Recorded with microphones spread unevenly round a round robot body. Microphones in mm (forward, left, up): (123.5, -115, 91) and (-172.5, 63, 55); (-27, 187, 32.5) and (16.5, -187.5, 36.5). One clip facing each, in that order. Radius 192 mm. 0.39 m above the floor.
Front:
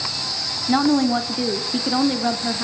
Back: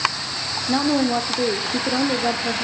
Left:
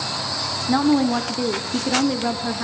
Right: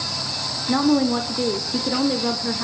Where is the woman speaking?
25° left, 0.8 m.